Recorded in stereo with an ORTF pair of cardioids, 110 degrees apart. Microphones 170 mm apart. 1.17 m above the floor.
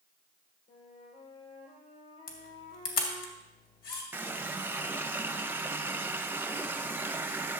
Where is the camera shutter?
65° left, 2.5 m.